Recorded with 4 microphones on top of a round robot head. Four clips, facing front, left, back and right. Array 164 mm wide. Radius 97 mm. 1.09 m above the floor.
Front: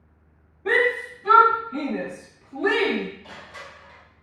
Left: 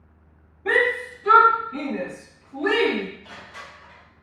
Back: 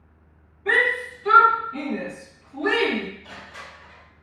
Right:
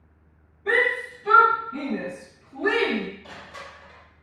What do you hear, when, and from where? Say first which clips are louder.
0.7 s a shout: left 2 dB, front 1 dB; 35° left, 1.6 m; by 3.0 s 5° right, 2 m
3.2 s crushing: even, even; 50° right, 1.5 m